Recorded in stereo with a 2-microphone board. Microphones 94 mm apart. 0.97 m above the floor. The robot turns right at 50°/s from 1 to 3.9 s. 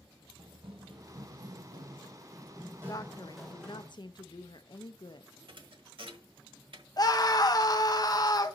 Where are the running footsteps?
60° right (ahead or behind), 1.7 m; by 3.9 s 20° left (ahead or behind), 3.5 m.